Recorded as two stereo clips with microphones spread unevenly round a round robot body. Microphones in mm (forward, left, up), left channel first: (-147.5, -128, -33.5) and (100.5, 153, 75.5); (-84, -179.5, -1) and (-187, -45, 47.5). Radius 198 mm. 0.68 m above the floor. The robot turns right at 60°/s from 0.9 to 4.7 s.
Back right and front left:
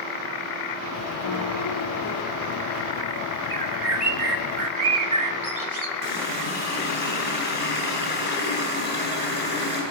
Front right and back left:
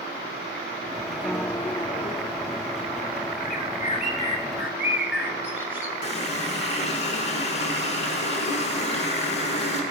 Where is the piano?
135° right, 1.3 m; by 2.6 s 55° right, 1.3 m.